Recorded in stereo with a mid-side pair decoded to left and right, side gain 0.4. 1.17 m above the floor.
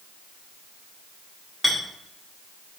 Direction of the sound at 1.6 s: Straight ahead.